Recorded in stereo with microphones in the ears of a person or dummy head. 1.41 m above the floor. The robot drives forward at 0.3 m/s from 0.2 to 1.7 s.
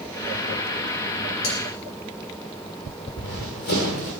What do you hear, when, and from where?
1.4 s cutlery clinking: 80° left, 4.5 m
3.1 s running footsteps: 55° left (ahead or behind), 6.5 m